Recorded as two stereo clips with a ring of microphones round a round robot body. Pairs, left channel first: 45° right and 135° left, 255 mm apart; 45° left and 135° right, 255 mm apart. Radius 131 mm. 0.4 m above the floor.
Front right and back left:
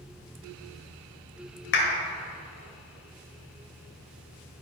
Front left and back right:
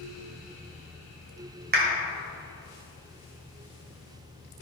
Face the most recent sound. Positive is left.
turn(degrees=-85)